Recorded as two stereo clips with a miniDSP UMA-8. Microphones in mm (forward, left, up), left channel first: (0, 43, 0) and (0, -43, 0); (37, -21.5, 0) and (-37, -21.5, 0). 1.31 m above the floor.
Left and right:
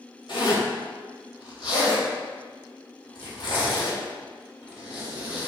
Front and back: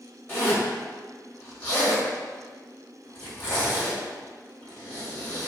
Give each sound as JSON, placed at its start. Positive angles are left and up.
{"t": 0.3, "sound": "a zipper", "azimuth_deg": 60, "distance_m": 1.5}